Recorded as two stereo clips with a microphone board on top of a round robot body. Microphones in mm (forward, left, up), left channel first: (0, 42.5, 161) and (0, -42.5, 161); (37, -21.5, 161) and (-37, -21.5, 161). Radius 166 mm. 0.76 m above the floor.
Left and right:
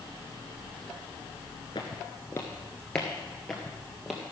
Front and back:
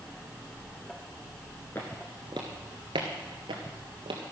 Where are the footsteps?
65° left, 0.7 m; by 4.2 s straight behind, 1.7 m.